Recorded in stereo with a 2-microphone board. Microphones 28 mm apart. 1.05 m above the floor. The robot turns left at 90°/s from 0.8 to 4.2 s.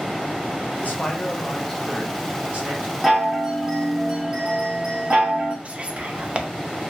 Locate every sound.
0.8 s a man speaking: 100° left, 0.8 m; by 2.9 s 90° right, 0.8 m
3.0 s a chime: 5° left, 0.9 m; by 5.5 s 100° right, 0.9 m
5.7 s whispering: 40° right (ahead or behind), 0.5 m